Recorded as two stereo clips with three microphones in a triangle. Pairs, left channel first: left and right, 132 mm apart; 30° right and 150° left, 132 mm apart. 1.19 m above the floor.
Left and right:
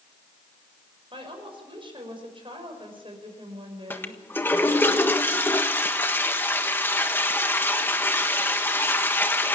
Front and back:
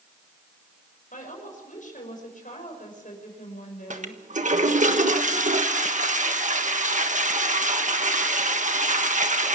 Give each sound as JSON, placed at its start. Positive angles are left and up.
{"t": 1.1, "sound": "a woman speaking", "azimuth_deg": -40, "distance_m": 6.0}
{"t": 3.9, "sound": "a toilet flushing", "azimuth_deg": 165, "distance_m": 1.4}